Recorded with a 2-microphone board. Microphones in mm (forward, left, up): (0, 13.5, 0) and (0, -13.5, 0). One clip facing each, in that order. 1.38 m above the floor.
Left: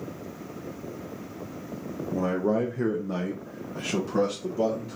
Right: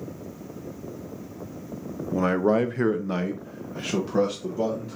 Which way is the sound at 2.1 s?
50° right (ahead or behind).